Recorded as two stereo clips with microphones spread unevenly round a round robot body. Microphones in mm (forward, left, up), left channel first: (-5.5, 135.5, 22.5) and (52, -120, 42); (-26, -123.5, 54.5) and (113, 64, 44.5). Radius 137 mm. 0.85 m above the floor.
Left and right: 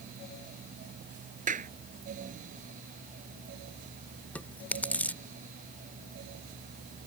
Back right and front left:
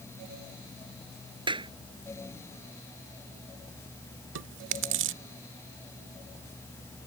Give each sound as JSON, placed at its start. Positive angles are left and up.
{"t": 1.5, "sound": "a clap", "azimuth_deg": -15}
{"t": 4.3, "sound": "chewing", "azimuth_deg": 15}